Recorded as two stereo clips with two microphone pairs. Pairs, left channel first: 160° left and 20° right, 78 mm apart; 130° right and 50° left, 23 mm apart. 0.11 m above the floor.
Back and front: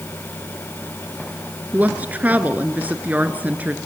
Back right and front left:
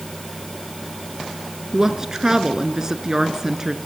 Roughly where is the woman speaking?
Ahead.